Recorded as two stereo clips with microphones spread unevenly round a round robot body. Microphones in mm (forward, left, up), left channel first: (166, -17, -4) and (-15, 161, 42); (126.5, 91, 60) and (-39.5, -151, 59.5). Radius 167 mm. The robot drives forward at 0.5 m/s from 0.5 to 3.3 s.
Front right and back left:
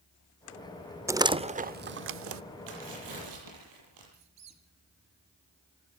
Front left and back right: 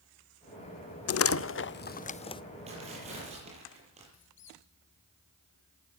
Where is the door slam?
45° left, 0.8 m; by 2.4 s 125° left, 0.7 m.